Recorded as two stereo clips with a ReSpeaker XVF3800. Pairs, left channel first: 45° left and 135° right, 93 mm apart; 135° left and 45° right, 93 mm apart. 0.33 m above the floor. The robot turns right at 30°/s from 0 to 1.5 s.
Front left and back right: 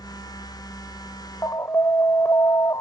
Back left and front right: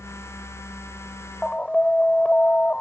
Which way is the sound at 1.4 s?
65° left.